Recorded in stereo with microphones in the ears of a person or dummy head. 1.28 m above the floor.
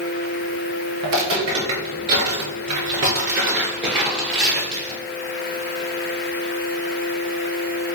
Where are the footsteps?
30° right (ahead or behind), 1.6 m; by 5.0 s centre (ahead or behind), 1.8 m.